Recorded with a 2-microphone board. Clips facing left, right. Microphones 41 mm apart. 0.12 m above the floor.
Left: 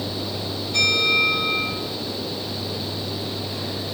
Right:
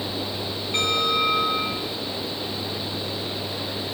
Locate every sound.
0.7 s a bell: 40° right (ahead or behind), 7.5 m